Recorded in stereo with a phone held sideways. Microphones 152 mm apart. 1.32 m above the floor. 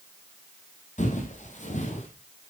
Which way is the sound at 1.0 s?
55° left (ahead or behind).